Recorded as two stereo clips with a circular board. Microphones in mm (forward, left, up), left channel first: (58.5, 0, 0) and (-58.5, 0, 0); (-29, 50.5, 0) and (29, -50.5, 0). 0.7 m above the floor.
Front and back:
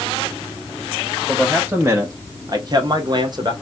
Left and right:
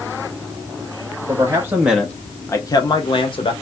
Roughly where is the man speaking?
Right.